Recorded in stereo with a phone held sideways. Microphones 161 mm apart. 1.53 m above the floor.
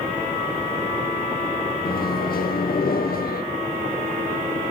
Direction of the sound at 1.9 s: 65° left (ahead or behind).